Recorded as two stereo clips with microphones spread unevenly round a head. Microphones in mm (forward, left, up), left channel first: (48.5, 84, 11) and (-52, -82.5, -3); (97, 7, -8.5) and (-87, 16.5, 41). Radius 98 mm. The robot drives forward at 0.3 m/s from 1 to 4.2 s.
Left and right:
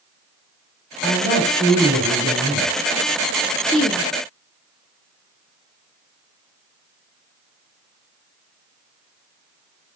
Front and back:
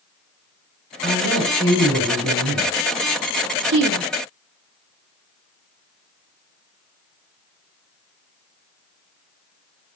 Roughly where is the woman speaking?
Behind left.